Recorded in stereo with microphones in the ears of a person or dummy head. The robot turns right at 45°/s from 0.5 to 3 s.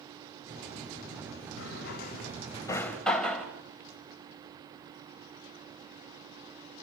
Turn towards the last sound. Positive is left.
turn(degrees=5)  # may be behind; listen again after turning